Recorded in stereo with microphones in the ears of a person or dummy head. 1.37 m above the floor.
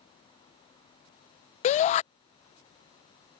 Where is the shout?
35° left (ahead or behind).